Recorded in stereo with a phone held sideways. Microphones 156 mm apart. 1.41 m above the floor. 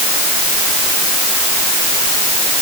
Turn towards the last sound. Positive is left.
No sound to turn to.